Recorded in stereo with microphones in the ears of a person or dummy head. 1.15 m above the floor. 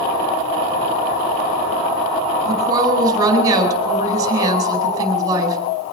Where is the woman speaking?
20° right (ahead or behind), 4.5 m.